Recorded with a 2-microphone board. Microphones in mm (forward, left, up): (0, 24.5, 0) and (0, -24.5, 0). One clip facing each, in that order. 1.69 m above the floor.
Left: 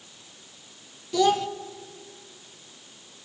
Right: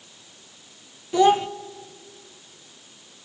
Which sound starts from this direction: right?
A child speaking, at 1.1 s.